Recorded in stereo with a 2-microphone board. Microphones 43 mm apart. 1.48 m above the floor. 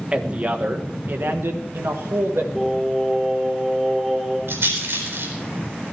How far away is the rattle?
About 4.5 m.